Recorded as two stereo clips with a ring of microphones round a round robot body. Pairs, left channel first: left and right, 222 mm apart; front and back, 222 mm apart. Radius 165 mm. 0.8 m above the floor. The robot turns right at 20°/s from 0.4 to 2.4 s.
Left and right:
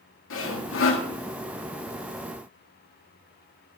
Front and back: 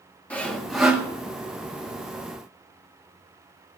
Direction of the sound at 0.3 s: 85° left.